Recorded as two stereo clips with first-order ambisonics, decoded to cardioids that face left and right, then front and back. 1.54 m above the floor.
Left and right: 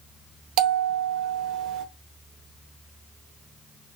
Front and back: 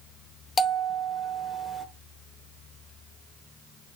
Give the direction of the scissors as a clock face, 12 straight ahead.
I don't hear scissors.